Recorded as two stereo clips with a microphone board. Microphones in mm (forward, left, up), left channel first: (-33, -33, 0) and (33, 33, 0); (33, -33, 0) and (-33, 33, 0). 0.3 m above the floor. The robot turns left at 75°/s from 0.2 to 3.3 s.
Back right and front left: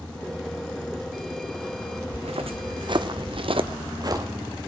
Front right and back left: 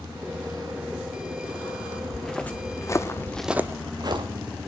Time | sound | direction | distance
2.1 | footsteps | 45° left | 1.7 m